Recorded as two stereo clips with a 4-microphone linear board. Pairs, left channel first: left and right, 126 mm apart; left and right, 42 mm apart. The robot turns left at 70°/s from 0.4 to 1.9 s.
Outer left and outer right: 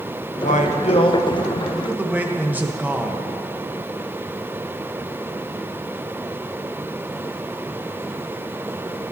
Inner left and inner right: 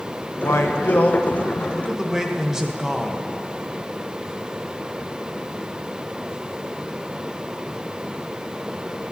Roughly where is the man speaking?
Left.